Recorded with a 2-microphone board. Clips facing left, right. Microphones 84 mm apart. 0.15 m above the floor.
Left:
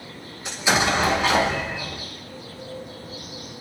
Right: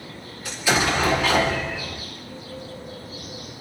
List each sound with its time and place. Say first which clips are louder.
0.5 s an explosion: left 1 dB; 20° left (ahead or behind), 1.2 m